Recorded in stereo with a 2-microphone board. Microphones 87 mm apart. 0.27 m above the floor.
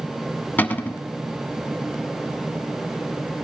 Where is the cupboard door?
20° left (ahead or behind), 0.5 m.